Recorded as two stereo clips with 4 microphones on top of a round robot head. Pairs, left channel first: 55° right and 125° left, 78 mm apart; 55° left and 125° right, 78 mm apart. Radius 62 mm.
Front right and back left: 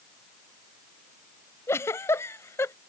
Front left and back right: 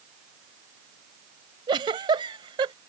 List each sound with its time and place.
1.7 s a giggle: 110° right